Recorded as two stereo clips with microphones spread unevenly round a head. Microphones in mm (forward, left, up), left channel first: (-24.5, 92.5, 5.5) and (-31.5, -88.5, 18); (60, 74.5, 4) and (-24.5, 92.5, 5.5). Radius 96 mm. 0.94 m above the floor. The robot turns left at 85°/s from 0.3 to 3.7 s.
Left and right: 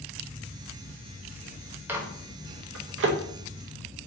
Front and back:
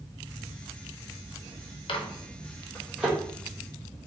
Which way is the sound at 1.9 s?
10° right.